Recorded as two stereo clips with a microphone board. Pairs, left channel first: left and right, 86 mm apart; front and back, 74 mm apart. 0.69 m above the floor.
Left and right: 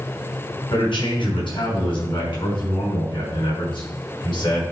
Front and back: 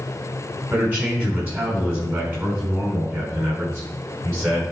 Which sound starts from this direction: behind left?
A man speaking, at 0.7 s.